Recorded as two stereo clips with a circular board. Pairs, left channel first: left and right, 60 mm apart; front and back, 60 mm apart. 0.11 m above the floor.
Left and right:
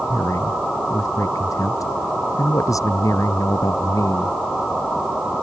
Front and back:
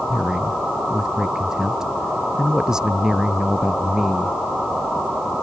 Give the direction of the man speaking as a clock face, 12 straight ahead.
9 o'clock.